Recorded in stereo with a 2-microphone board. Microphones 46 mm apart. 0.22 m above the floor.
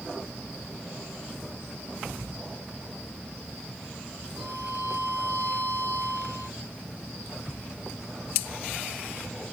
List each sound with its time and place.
4.4 s a violin: 35° right (ahead or behind), 8 m